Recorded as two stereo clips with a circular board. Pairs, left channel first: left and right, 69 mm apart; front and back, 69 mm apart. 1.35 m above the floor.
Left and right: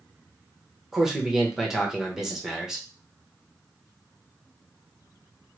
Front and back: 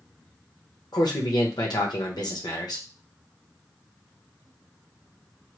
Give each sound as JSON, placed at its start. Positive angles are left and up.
{"t": 0.9, "sound": "a man speaking", "azimuth_deg": -5, "distance_m": 1.0}